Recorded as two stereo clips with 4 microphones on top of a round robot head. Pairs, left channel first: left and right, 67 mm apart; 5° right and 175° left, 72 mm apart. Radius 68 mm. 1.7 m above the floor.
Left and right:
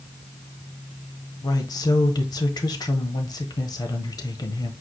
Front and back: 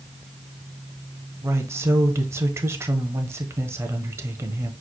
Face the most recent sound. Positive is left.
turn(degrees=120)